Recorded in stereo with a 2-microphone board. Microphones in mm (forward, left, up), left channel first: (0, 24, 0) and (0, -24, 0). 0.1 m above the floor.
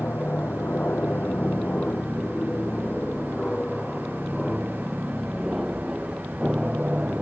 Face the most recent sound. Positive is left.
turn(degrees=-25)  # may be behind; listen again after turning